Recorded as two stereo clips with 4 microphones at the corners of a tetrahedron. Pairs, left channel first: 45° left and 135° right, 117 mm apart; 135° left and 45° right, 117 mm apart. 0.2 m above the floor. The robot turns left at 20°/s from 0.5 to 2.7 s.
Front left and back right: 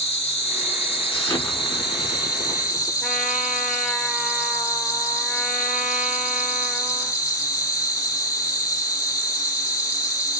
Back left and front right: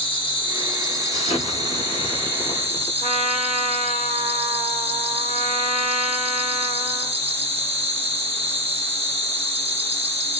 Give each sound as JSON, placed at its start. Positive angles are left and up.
{"t": 0.0, "sound": "an insect", "azimuth_deg": 30, "distance_m": 1.4}
{"t": 1.1, "sound": "an explosion", "azimuth_deg": 110, "distance_m": 0.9}
{"t": 3.0, "sound": "a trumpet", "azimuth_deg": -45, "distance_m": 0.9}